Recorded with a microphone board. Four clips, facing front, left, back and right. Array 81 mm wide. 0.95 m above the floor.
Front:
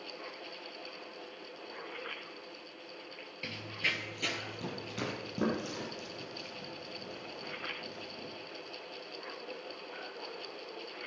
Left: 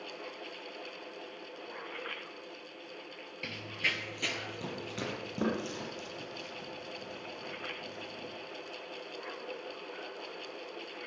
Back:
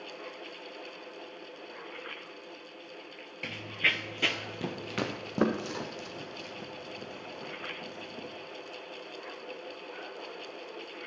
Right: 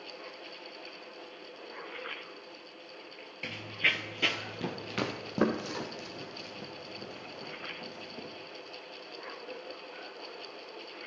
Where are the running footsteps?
160° right, 0.9 m; by 8.3 s 145° right, 3.5 m.